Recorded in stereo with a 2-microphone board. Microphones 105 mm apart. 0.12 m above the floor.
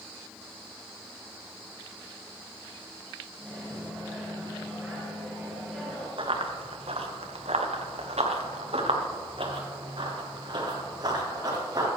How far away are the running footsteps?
About 1.9 m.